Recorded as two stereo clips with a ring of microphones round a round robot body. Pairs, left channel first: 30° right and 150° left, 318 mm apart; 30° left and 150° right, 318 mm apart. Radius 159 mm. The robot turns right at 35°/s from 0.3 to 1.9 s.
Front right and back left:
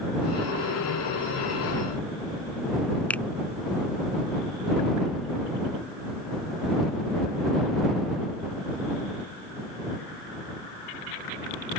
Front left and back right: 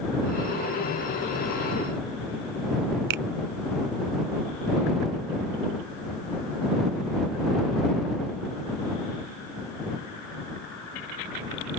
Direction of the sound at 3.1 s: 115° right.